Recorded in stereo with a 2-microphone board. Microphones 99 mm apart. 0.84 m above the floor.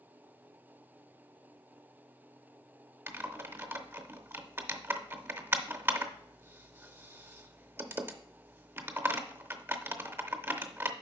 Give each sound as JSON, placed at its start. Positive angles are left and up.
{"t": 3.1, "sound": "typing on a keyboard", "side_deg": -25, "distance_m": 0.6}